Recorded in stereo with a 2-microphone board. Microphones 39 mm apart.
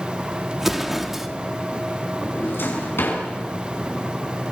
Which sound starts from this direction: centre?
An explosion, at 0.6 s.